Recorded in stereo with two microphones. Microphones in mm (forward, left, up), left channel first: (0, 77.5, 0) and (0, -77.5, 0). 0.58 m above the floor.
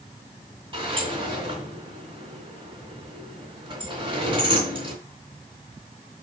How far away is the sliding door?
About 3 m.